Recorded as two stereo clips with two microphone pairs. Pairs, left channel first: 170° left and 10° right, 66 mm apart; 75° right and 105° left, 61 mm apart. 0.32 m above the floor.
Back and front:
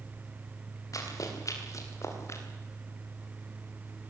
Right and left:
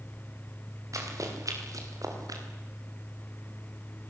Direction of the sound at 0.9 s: 135° left.